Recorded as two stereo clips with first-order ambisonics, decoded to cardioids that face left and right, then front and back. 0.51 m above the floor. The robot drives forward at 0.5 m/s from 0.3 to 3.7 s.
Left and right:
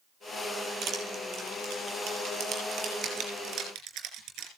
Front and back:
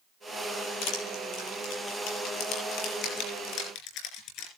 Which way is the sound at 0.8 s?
30° right.